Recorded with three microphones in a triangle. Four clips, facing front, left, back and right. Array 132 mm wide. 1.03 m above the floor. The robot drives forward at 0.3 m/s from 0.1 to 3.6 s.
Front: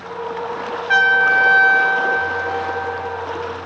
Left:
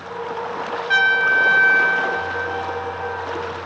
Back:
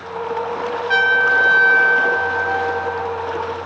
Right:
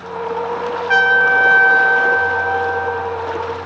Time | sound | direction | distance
0.9 | a trumpet | 55° right | 0.6 m